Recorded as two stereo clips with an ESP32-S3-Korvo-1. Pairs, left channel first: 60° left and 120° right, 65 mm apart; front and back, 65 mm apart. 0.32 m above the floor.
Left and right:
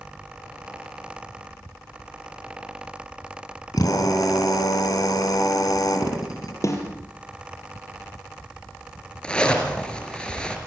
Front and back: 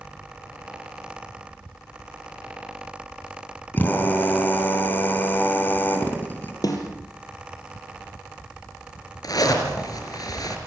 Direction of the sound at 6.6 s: 20° left.